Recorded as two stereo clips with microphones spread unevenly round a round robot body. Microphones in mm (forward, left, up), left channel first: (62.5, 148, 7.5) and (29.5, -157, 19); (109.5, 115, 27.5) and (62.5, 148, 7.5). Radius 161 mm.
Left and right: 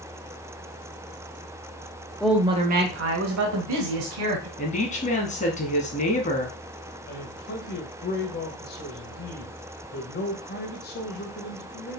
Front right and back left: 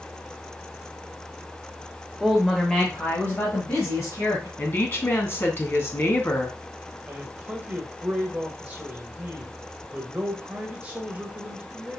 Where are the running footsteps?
No running footsteps in this recording.